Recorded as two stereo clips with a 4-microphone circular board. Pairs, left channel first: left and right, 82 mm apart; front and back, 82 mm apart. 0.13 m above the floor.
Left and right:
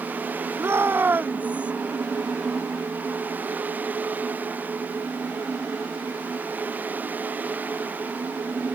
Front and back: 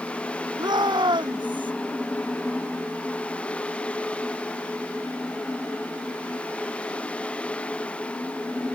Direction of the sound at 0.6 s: 145° right.